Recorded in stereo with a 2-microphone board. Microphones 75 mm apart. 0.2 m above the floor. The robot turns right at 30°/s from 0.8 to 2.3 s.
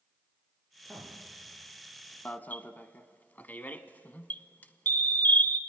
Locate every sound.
0.8 s a man speaking: 5° left (ahead or behind), 7 m; by 2.1 s 45° left (ahead or behind), 7 m
2.2 s an alarm: 25° left (ahead or behind), 1.0 m